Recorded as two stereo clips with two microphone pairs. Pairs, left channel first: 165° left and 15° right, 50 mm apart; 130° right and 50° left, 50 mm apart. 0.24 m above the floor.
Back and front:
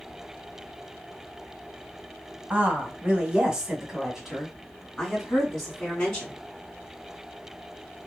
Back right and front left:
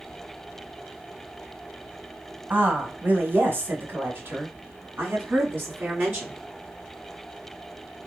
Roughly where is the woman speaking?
Ahead left.